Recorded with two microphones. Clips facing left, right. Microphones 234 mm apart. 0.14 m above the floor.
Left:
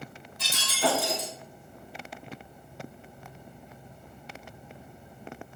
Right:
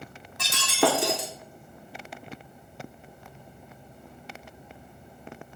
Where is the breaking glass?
80° right, 2 m.